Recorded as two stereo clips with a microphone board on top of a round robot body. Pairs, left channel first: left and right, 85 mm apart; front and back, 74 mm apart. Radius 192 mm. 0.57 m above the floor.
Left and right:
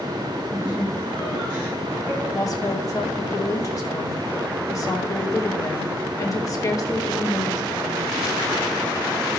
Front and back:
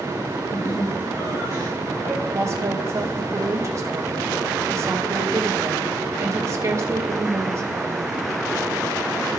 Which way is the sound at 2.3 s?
135° left.